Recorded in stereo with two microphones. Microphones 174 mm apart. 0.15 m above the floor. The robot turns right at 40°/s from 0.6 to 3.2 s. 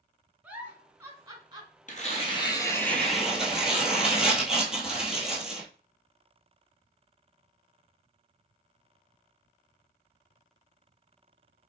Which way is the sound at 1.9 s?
130° left.